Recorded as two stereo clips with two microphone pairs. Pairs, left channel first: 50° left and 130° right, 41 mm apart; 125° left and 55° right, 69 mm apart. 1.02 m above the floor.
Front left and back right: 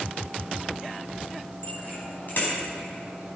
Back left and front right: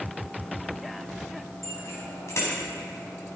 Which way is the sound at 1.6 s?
80° left.